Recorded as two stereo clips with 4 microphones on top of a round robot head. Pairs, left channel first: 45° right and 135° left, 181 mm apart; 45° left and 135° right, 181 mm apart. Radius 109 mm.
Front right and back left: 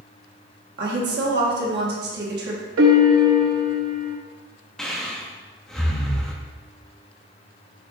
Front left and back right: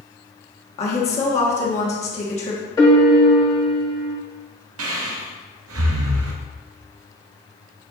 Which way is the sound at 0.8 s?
100° left.